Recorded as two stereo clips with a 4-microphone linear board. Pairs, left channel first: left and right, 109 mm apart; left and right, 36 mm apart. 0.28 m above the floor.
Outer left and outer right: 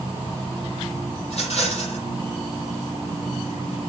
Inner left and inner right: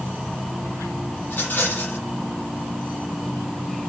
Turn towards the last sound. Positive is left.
turn(degrees=75)  # may be behind; listen again after turning